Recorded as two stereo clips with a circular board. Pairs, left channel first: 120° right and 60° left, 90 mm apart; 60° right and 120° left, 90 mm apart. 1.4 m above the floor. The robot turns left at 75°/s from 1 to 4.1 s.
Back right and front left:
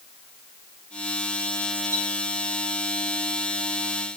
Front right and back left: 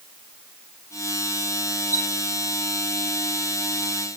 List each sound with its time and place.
1.9 s a chime: 5° left, 6.5 m; by 2.1 s 10° right, 6.5 m